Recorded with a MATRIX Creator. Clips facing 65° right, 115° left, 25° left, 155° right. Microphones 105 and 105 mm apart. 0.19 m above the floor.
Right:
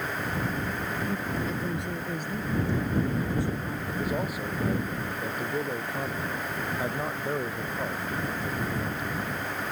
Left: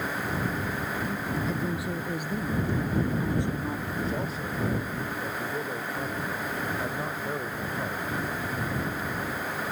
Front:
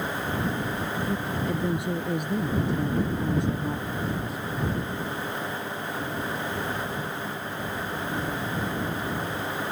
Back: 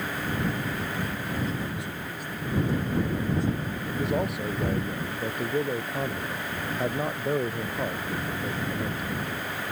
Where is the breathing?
No breathing in this recording.